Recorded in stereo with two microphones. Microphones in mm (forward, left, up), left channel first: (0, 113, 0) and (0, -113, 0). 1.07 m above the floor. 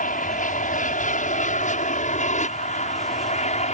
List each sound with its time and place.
0.0 s an aircraft: 35° left (ahead or behind); by 3.8 s 30° left (ahead or behind)